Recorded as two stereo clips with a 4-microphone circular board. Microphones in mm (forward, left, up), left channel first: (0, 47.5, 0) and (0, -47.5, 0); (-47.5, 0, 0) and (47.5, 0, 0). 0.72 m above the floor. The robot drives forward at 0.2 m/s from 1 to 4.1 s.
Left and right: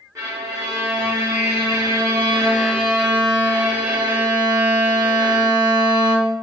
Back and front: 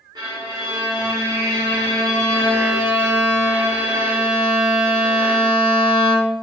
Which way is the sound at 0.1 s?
40° right.